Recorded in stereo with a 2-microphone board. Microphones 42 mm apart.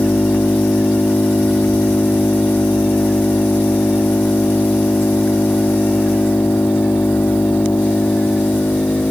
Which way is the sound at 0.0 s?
60° left (ahead or behind).